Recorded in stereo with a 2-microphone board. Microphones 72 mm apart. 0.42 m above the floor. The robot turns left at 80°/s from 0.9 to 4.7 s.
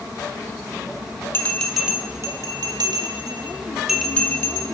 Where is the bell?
30° left (ahead or behind), 0.8 m; by 4.7 s 55° left (ahead or behind), 0.8 m.